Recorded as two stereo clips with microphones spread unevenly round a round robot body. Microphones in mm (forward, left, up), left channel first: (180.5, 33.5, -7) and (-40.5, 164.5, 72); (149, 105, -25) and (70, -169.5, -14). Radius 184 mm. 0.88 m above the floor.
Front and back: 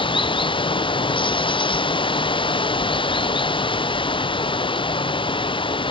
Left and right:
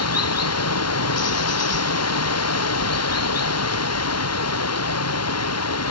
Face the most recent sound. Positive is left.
turn(degrees=40)